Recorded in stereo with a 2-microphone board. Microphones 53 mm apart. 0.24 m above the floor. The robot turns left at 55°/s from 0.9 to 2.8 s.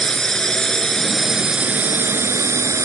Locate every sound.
0.0 s a drone: 15° left; by 2.9 s 90° right